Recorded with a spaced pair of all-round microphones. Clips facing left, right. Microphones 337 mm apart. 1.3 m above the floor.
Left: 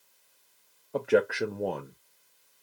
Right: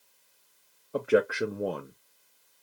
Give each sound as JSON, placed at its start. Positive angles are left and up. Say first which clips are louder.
{"t": 0.9, "sound": "a man speaking", "louder": "even", "side_deg": -5, "distance_m": 0.5}